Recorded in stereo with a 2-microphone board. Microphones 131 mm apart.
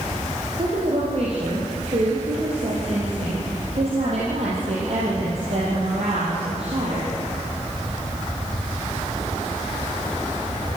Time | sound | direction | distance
0.6 | a woman speaking | 50° right (ahead or behind) | 5 m